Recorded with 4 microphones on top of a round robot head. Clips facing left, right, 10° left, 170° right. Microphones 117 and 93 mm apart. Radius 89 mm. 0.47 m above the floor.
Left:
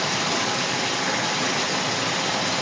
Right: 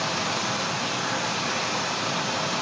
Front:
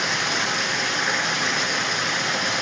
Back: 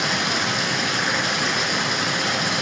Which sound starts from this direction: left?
Running water, at 0.0 s.